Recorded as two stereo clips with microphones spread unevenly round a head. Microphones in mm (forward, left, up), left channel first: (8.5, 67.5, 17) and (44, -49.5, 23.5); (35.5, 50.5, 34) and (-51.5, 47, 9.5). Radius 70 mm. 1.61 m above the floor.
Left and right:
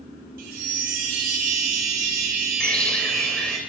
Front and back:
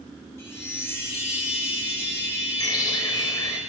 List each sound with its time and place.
0.4 s a chime: 70° right, 3.5 m
2.6 s a bird: 25° left, 2.5 m